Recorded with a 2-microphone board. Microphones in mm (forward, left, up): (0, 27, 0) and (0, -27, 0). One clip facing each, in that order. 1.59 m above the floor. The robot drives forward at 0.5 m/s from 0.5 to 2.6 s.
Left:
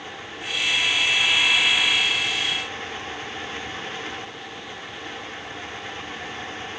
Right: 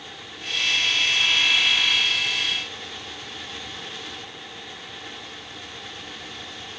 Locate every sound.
Only background noise.